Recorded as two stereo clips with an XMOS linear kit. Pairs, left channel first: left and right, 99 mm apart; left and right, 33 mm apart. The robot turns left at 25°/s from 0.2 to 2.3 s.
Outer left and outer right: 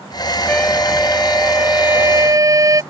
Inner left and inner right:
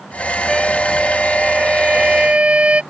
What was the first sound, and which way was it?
A trumpet, 10° left.